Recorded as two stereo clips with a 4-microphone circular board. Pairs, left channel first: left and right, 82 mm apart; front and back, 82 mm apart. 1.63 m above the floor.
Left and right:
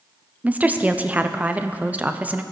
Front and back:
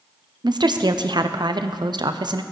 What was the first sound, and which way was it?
A woman speaking, 160° right.